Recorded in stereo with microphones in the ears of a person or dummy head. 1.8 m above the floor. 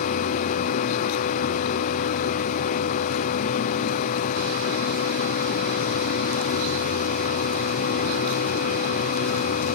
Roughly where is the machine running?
Left.